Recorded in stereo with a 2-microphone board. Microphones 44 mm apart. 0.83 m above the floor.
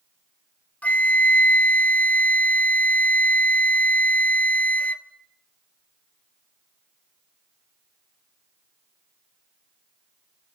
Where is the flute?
35° left (ahead or behind), 1.0 m.